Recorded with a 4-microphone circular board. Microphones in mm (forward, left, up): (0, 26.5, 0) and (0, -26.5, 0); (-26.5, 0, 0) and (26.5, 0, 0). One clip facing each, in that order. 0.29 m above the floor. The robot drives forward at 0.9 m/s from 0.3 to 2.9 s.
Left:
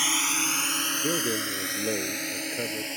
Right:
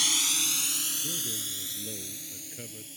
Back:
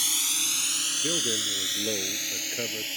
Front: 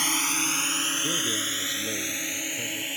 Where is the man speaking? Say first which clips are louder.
Left 11 dB, front 1 dB; 110° left; by 3.0 s 130° left.